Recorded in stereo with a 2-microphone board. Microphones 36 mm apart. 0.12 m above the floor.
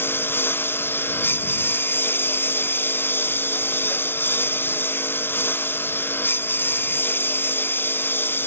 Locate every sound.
0.0 s a lawn mower: 65° left (ahead or behind)